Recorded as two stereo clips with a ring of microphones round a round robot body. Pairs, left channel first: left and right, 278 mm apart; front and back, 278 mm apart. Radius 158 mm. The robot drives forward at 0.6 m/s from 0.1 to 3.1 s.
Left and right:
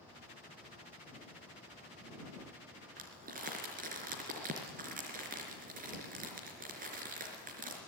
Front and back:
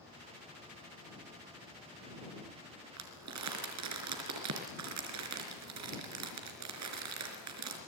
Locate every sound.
3.0 s crumpling: 155° right, 4 m